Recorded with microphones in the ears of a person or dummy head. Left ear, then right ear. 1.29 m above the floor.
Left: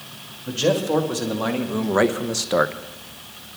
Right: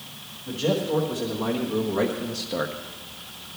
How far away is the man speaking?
About 2 m.